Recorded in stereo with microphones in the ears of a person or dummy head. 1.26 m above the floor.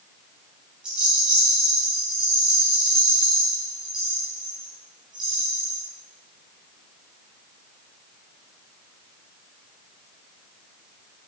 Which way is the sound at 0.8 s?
10° right (ahead or behind).